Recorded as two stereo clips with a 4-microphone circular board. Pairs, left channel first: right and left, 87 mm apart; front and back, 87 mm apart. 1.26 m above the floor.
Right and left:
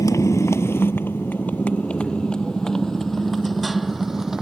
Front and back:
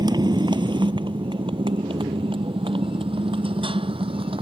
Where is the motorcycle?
145° right; by 4.4 s 175° left.